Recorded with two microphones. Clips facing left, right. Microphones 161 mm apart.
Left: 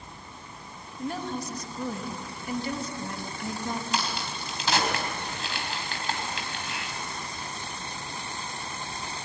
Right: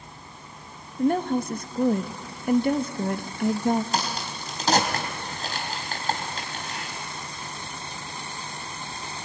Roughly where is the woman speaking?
Right.